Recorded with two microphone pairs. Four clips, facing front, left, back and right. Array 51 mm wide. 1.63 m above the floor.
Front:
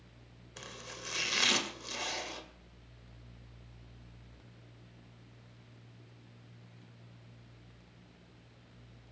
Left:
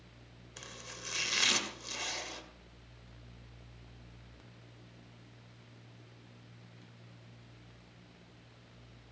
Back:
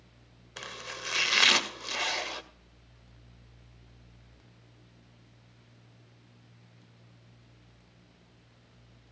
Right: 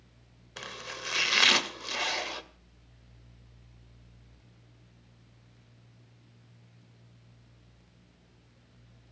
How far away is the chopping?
About 2 m.